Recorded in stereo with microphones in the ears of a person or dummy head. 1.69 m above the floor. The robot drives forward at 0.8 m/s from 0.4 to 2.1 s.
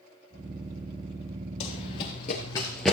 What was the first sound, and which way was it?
Running footsteps, 30° left (ahead or behind).